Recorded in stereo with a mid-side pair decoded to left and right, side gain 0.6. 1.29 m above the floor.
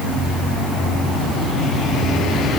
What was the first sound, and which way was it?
Only background noise.